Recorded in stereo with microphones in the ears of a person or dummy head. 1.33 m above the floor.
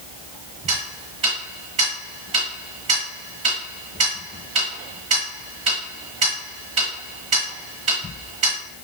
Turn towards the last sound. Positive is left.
turn(degrees=-35)  # may be behind; listen again after turning